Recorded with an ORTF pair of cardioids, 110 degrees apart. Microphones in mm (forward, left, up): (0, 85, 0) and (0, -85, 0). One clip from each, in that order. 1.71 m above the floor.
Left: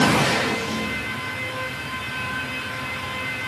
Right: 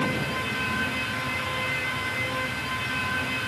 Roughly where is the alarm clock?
I don't hear an alarm clock.